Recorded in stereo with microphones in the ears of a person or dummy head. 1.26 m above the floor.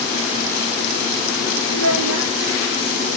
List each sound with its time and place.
1.7 s a child speaking: 70° right (ahead or behind), 0.9 m